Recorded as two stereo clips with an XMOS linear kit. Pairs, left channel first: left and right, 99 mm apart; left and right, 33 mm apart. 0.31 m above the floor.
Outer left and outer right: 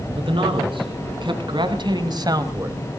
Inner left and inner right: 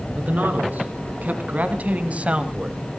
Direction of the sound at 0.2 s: 60° right (ahead or behind).